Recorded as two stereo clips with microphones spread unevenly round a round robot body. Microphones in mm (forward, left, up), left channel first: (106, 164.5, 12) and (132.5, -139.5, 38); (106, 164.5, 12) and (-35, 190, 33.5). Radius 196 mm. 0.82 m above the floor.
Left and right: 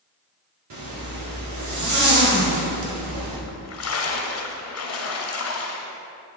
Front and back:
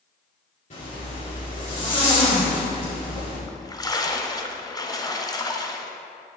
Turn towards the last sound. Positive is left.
turn(degrees=55)